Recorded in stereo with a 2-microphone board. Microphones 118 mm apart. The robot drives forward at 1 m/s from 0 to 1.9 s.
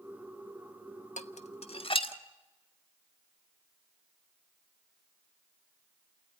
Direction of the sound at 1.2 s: 85° left.